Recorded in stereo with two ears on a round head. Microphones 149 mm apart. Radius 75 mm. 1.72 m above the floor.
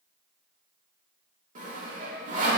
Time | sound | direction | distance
1.6 | sawing | 50° right (ahead or behind) | 2 m